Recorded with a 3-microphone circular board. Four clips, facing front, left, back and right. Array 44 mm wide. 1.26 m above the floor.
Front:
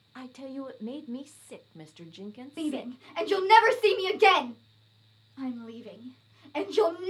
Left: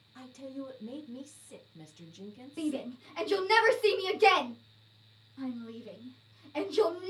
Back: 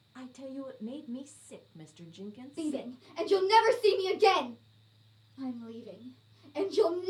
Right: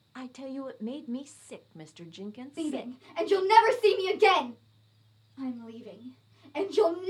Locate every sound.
0.1 s a woman speaking: 55° right, 0.5 m
2.6 s a shout: 5° right, 1.4 m